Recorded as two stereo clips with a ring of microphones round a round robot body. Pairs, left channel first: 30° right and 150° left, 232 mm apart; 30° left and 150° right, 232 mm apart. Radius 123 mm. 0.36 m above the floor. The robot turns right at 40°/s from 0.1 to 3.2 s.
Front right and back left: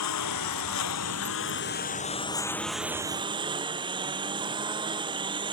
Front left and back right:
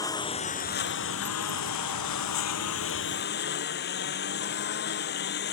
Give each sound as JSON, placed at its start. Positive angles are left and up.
{"t": 0.0, "sound": "a lawn mower", "azimuth_deg": -45}